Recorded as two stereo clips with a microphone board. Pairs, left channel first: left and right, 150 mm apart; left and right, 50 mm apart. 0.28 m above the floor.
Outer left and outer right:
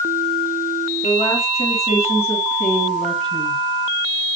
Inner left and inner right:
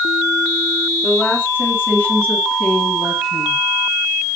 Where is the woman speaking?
30° left (ahead or behind), 2.5 m; by 3.6 s centre (ahead or behind), 2.5 m.